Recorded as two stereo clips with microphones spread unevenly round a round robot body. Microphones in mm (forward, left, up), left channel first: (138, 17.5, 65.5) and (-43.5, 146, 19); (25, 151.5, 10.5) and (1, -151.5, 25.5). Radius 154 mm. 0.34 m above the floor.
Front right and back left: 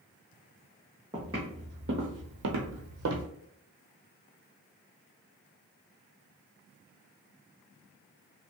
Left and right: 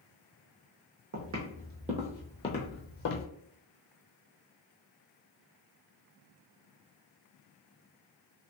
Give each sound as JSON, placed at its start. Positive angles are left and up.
{"t": 1.1, "sound": "footsteps", "azimuth_deg": -135, "distance_m": 1.0}